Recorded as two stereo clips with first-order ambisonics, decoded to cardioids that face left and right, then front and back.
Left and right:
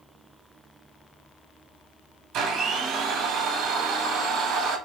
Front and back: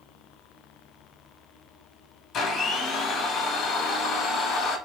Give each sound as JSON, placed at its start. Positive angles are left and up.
{"t": 2.3, "sound": "a blender", "azimuth_deg": -50, "distance_m": 1.0}